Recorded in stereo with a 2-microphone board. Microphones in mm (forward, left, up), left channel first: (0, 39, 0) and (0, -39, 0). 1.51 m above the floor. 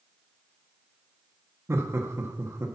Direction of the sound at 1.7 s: 35° right (ahead or behind).